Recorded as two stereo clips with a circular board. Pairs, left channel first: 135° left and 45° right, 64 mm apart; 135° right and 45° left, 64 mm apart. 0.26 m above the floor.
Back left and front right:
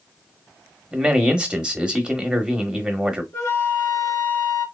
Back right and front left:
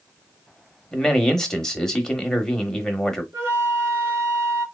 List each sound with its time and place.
0.9 s a man speaking: 75° right, 0.9 m
3.3 s a flute: 90° left, 1.7 m